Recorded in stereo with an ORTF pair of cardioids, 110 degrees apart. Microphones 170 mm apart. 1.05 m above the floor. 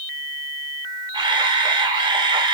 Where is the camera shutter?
25° right, 2.5 m.